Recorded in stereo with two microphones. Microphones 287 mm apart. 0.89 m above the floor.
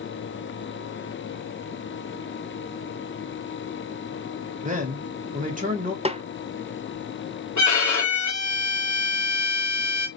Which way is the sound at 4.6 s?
30° right (ahead or behind).